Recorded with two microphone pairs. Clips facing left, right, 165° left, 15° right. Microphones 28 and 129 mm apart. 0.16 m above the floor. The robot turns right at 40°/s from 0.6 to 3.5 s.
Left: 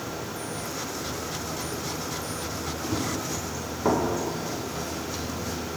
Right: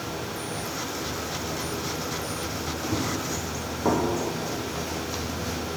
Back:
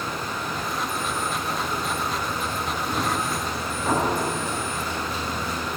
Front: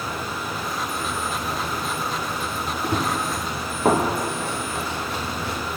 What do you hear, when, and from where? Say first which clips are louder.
2.8 s running footsteps: right 1 dB, front 3 dB; 10° right, 3 m; by 5.6 s 20° right, 2.5 m